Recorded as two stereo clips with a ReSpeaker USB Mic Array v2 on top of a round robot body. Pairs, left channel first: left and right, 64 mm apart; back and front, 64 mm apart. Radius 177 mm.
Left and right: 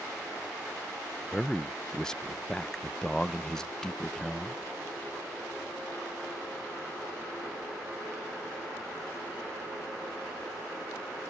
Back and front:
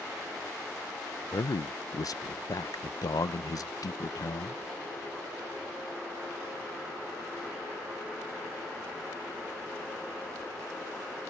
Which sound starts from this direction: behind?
A man speaking, at 1.3 s.